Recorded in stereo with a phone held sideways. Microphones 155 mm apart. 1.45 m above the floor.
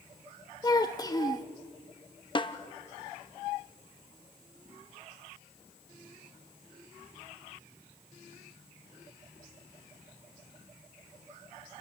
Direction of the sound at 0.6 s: 25° left (ahead or behind).